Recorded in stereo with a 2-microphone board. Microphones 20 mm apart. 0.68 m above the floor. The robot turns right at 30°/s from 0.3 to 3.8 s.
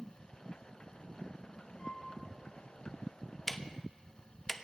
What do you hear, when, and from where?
1.8 s a flute: 45° left (ahead or behind), 3.5 m; by 2.1 s 55° left (ahead or behind), 3.5 m
3.5 s ticking: 15° left (ahead or behind), 0.6 m; by 4.5 s 20° left (ahead or behind), 0.6 m